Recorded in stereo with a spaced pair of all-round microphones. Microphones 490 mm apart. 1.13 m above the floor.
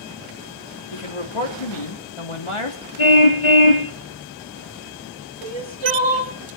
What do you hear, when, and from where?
0.9 s a man speaking: 75° left (ahead or behind), 2.5 m
3.0 s a car horn: 75° left (ahead or behind), 2 m
5.4 s crying: 60° right (ahead or behind), 1.8 m